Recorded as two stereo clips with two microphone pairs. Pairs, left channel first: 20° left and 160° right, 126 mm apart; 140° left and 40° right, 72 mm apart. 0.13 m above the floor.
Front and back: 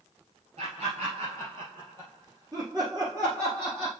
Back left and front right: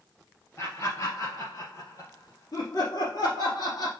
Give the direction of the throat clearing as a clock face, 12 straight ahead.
No throat clearing in this recording.